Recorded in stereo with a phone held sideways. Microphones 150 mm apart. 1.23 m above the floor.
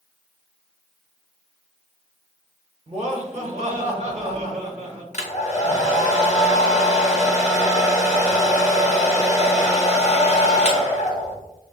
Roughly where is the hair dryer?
Left.